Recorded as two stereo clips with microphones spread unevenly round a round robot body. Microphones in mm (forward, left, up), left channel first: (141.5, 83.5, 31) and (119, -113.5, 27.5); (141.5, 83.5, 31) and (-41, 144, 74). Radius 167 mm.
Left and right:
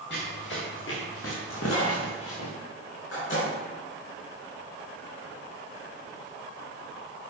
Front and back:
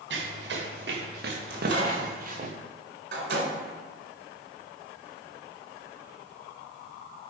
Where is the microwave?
135° left, 3.5 m.